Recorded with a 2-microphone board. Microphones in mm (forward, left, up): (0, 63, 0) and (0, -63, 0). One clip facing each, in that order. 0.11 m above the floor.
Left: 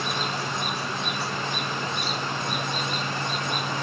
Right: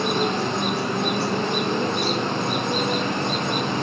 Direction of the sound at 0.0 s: 50° right (ahead or behind).